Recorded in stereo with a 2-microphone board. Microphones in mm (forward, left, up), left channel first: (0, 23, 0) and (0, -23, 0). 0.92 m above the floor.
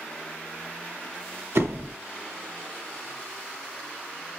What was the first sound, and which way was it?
A door slam, 65° right (ahead or behind).